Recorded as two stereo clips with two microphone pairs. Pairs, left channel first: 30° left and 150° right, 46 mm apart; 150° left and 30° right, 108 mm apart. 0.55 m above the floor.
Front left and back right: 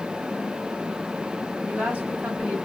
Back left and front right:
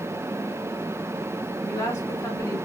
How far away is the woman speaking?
About 1.5 m.